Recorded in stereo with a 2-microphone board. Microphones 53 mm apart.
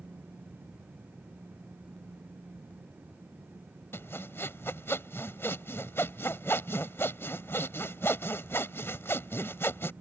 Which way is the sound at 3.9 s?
50° left (ahead or behind).